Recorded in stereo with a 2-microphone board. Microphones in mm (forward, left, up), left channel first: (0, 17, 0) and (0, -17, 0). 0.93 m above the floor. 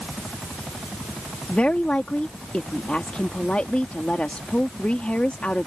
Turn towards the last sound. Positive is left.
turn(degrees=45)  # may be behind; listen again after turning